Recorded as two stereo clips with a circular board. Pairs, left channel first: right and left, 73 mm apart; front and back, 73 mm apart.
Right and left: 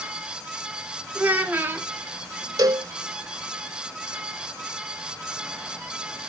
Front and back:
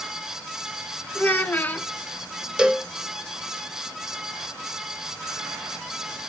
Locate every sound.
1.1 s a child speaking: 45° left, 0.9 m
2.6 s a cowbell: 100° left, 0.6 m